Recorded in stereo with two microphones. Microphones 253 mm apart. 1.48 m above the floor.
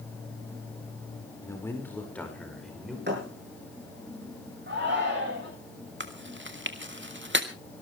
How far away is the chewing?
About 1.9 m.